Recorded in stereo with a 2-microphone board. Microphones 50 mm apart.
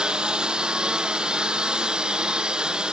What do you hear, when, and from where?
0.0 s a lawn mower: 20° right (ahead or behind)